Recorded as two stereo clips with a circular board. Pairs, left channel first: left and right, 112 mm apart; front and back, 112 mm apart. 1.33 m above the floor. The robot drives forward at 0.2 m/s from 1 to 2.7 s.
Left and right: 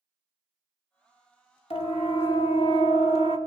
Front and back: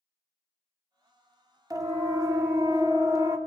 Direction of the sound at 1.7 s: 120° left.